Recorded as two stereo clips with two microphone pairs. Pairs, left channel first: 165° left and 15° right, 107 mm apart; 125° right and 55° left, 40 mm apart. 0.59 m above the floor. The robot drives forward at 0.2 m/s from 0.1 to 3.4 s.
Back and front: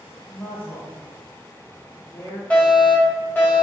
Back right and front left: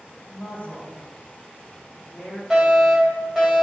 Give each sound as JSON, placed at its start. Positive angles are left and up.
{"t": 0.3, "sound": "a woman speaking", "azimuth_deg": -140, "distance_m": 1.0}
{"t": 2.5, "sound": "a fire alarm", "azimuth_deg": 110, "distance_m": 1.5}